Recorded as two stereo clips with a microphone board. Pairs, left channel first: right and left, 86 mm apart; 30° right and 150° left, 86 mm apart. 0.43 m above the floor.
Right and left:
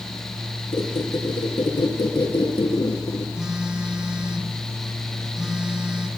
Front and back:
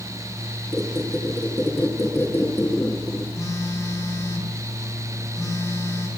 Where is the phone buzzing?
10° left, 2 m.